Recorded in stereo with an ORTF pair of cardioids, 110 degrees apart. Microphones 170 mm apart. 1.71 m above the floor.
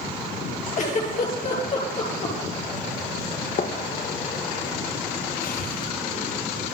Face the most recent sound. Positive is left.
turn(degrees=65)